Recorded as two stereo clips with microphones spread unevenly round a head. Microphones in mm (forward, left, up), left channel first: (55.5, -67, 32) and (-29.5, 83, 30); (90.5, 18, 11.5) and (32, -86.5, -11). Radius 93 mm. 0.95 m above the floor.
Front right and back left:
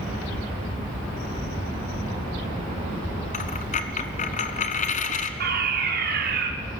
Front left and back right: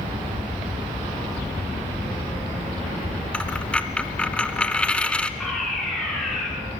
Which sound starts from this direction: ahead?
A dropped coin, at 3.3 s.